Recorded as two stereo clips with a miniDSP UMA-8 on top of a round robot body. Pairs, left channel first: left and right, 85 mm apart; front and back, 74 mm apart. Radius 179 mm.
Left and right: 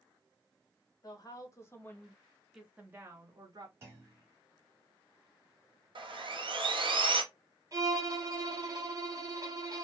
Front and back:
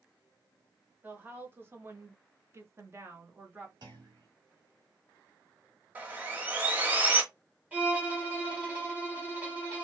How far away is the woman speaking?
About 1.5 m.